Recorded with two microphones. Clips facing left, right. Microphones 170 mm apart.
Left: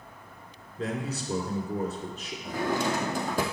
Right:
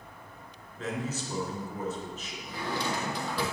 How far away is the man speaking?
About 2.5 m.